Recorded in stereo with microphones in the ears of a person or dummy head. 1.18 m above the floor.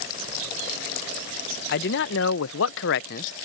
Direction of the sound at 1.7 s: 50° left (ahead or behind).